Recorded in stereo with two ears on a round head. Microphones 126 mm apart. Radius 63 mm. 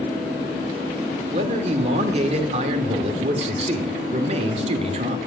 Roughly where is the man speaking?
Right.